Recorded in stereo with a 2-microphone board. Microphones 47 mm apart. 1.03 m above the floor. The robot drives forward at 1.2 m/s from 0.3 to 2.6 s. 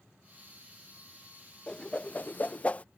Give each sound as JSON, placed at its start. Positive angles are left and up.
{"t": 1.7, "sound": "a whoosh", "side_deg": 20}